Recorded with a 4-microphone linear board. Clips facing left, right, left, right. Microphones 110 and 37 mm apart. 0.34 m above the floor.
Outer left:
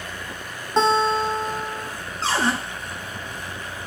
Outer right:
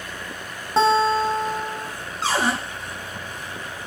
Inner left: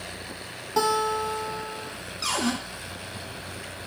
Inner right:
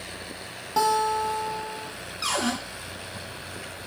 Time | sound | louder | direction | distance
0.8 | a guitar | outer right 1 dB, inner right 1 dB | 5° right (ahead or behind) | 0.5 m
2.2 | a cupboard door | even, even | 15° right (ahead or behind) | 1.5 m